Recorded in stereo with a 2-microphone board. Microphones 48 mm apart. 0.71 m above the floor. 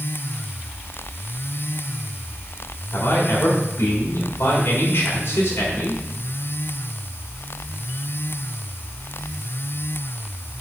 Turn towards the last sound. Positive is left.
turn(degrees=55)  # may be behind; listen again after turning